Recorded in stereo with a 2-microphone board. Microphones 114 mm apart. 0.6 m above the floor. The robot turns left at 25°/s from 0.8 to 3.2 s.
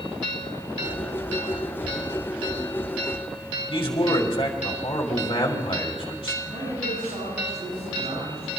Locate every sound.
3.7 s a man speaking: 50° left (ahead or behind), 2.5 m
6.4 s a man speaking: 75° right (ahead or behind), 8.5 m